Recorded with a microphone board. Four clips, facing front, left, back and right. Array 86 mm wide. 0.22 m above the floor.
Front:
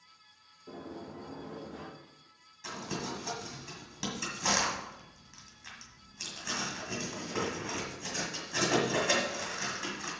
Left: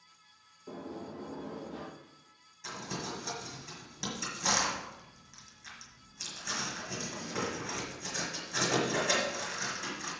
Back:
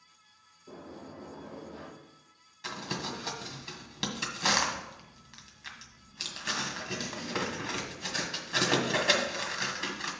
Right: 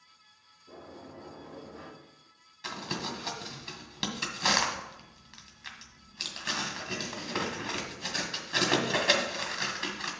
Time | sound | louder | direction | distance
0.7 | a sliding door | left 5 dB, front 2 dB | 70° left | 3 m
2.6 | crumpling | right 3 dB, back 1 dB | 125° right | 1.9 m